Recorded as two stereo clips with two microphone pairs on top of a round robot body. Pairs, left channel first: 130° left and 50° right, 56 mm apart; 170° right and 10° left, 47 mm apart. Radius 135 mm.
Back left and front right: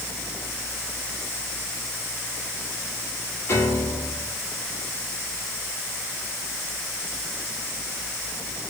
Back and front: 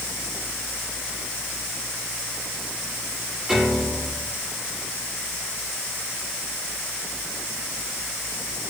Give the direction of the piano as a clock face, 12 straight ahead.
9 o'clock.